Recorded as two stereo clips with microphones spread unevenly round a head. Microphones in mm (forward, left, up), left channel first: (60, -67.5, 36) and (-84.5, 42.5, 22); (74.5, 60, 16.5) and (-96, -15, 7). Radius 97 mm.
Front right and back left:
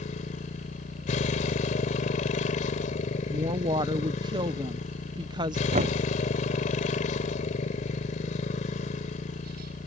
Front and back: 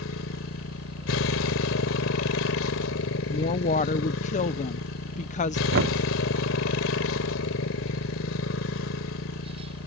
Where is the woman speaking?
75° left.